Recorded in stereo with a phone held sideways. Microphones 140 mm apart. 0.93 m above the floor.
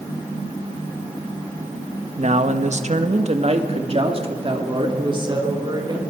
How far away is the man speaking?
About 1.2 m.